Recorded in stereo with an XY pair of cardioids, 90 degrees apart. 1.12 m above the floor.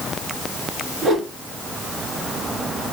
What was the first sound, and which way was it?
A whoosh, 70° right.